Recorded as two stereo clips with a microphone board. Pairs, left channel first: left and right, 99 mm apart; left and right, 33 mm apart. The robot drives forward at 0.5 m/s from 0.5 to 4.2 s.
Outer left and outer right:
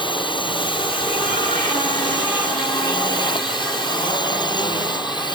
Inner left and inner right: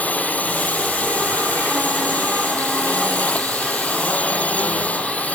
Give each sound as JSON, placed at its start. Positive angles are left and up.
{"t": 0.0, "sound": "a drone", "side_deg": 55}